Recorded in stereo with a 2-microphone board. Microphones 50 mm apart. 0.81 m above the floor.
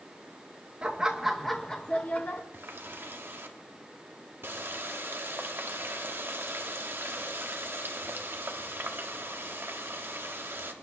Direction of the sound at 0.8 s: 20° right (ahead or behind).